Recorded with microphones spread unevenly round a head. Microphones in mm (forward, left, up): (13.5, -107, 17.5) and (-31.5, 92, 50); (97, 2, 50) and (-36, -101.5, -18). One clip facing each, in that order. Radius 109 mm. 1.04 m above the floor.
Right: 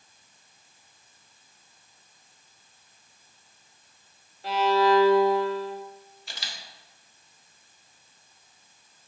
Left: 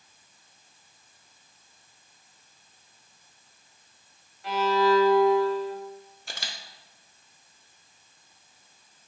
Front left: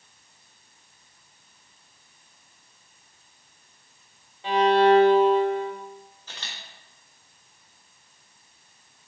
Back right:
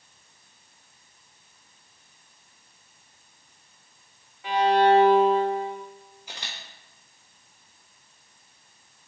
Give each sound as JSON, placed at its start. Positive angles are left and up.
{"t": 4.4, "sound": "a violin", "azimuth_deg": -40, "distance_m": 1.1}
{"t": 6.3, "sound": "a camera shutter", "azimuth_deg": 150, "distance_m": 0.5}